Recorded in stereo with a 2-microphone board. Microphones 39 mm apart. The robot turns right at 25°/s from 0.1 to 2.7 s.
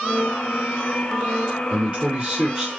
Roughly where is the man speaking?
Right.